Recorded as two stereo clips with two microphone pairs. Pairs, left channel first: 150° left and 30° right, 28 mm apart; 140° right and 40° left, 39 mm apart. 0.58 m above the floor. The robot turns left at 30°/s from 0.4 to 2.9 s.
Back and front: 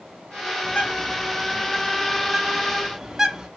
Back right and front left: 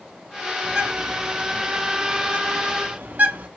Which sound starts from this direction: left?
A bird, at 0.6 s.